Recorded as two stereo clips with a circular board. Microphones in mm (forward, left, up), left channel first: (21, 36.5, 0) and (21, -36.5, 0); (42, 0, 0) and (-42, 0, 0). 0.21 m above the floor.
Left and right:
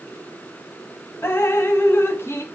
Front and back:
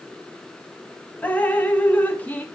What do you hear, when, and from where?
1.2 s dripping: 60° left, 0.6 m